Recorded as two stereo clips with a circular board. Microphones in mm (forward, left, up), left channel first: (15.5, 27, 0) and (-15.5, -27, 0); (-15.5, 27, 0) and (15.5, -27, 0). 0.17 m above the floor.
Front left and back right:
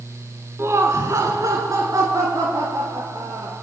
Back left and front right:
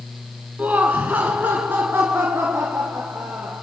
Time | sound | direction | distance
0.6 | laughter | 115° right | 1.6 m